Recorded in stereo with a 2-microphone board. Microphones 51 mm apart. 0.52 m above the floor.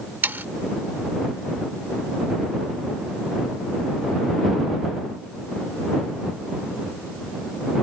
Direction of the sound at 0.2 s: 40° right (ahead or behind).